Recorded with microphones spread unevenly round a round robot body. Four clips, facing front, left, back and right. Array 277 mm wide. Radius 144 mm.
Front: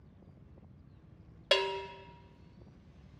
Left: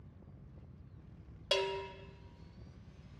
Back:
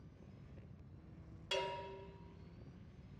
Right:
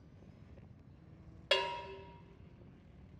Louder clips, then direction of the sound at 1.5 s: Left 1 dB, front 10 dB; 5° right.